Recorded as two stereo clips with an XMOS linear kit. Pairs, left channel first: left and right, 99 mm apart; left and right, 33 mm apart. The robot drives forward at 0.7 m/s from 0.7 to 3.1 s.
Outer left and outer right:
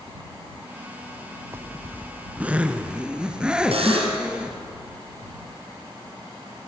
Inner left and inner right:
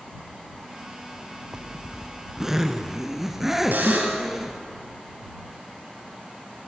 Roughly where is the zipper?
Right.